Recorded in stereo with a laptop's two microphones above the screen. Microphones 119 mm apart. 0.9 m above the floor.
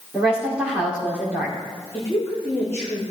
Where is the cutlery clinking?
No cutlery clinking in this recording.